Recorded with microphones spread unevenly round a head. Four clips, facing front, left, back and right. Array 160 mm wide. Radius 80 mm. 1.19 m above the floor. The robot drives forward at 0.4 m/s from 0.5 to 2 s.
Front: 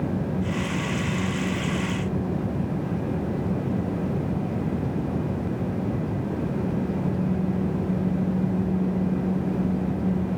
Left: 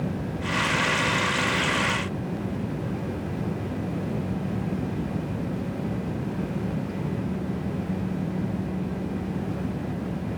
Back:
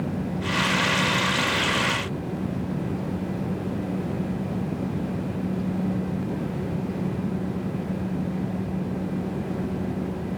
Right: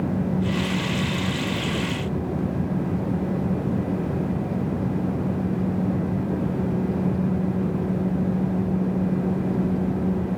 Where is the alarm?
I don't hear an alarm.